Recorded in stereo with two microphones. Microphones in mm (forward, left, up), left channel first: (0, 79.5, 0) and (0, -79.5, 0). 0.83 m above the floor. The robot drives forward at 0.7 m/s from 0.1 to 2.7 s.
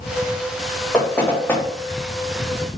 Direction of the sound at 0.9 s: 10° left (ahead or behind).